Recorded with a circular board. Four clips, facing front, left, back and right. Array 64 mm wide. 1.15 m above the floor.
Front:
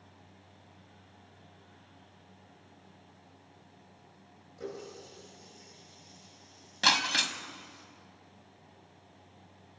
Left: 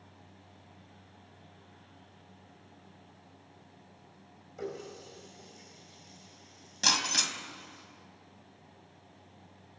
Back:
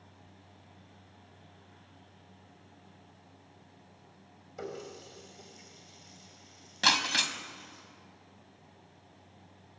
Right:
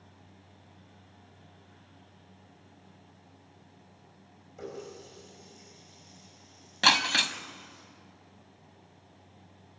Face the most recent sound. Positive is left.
turn(degrees=-90)